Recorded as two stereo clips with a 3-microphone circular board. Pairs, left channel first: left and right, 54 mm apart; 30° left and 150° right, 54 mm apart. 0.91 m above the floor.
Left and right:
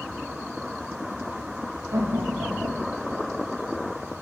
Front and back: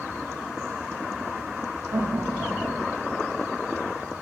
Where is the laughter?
115° right, 1.6 m; by 3.3 s 65° right, 1.8 m.